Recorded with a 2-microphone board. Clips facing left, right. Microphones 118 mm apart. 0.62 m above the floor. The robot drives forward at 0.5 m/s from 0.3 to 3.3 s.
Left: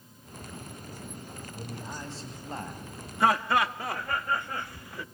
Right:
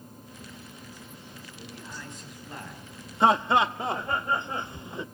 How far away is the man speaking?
About 4 m.